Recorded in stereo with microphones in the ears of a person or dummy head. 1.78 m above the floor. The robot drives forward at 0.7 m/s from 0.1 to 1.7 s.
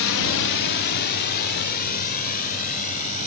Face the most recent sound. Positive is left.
turn(degrees=45)  # may be behind; listen again after turning